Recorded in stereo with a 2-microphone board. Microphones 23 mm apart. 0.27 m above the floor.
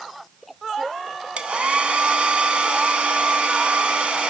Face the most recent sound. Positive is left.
turn(degrees=-70)  # may be behind; listen again after turning